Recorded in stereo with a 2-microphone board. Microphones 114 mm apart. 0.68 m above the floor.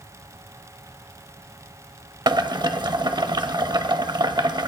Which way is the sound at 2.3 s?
40° right (ahead or behind).